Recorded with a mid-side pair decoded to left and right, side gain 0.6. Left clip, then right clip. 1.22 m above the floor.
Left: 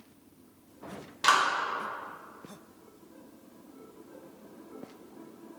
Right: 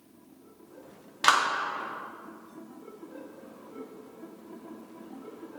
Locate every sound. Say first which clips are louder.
1.2 s a clap: right 1 dB; 25° right, 1.9 m